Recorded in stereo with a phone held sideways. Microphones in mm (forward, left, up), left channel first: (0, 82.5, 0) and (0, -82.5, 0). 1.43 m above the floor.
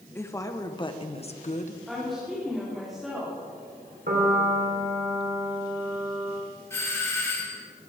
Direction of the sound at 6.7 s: 15° left (ahead or behind).